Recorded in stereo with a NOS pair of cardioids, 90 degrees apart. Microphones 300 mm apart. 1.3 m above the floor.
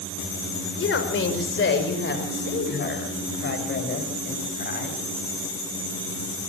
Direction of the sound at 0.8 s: 40° left.